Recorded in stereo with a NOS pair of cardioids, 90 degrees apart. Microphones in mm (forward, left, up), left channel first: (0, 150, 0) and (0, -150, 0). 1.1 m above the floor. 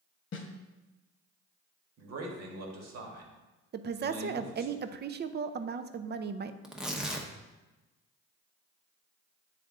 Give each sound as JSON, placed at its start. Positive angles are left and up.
{"t": 0.3, "sound": "a snare drum", "azimuth_deg": 45, "distance_m": 1.0}
{"t": 2.0, "sound": "a man speaking", "azimuth_deg": -65, "distance_m": 1.6}
{"t": 3.7, "sound": "a woman speaking", "azimuth_deg": -35, "distance_m": 0.5}
{"t": 6.6, "sound": "tearing paper", "azimuth_deg": 0, "distance_m": 0.8}